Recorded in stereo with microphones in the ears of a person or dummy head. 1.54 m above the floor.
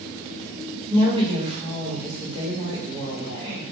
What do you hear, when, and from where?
0.9 s a woman speaking: 30° right (ahead or behind), 0.9 m